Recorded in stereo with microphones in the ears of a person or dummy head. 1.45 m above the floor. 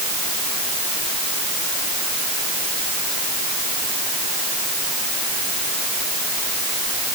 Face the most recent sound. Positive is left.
No sound to turn to.